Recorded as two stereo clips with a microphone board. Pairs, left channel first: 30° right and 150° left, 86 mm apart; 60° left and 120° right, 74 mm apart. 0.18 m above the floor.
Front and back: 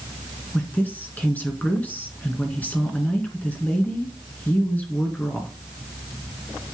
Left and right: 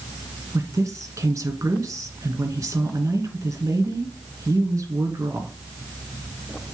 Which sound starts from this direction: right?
A woman speaking, at 0.5 s.